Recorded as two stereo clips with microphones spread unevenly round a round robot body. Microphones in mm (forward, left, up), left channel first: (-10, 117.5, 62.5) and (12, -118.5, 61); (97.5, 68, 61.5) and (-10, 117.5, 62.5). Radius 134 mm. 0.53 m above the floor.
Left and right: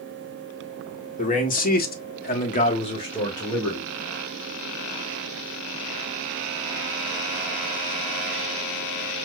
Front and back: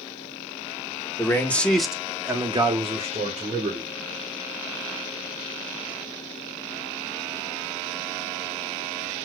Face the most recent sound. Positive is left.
turn(degrees=175)